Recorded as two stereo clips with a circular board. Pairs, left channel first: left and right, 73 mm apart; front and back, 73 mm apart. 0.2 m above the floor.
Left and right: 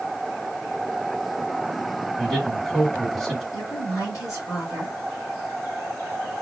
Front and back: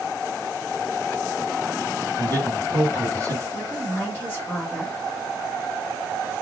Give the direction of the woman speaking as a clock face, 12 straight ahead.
10 o'clock.